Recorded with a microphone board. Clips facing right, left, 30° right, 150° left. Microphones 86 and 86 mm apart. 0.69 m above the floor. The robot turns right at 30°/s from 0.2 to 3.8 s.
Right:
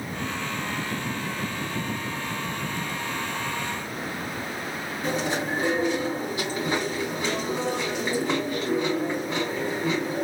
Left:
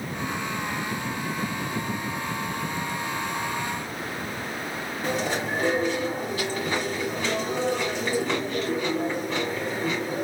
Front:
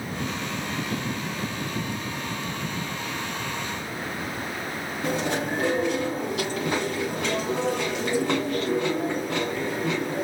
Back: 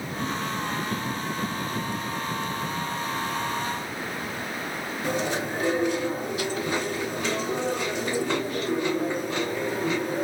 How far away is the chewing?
About 1.7 m.